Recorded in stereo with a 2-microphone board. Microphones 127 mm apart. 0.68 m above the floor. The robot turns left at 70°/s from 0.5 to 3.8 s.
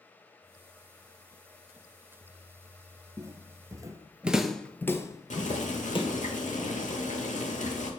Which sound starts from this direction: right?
Footsteps, at 3.2 s.